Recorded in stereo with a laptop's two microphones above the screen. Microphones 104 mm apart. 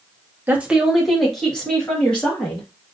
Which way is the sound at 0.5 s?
20° right (ahead or behind).